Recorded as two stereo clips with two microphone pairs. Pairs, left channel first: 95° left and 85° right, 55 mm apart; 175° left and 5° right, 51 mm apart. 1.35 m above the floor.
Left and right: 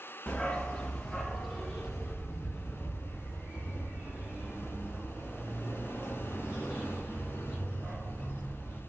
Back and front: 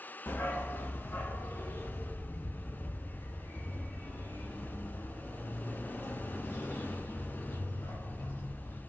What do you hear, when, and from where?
0.3 s a dog barking: 155° left, 1.0 m; by 8.8 s 150° right, 4.5 m